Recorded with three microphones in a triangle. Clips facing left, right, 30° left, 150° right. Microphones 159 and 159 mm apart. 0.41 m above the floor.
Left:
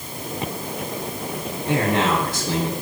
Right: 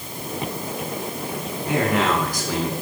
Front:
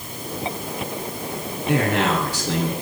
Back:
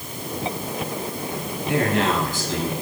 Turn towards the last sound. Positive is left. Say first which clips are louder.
# even, front 1 dB
turn(degrees=30)